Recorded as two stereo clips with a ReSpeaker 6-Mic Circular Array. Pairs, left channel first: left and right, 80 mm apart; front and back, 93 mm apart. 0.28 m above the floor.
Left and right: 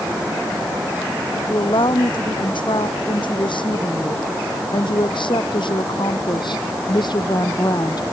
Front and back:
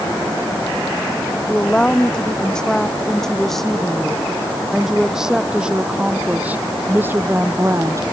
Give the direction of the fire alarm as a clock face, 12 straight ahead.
I don't hear a fire alarm.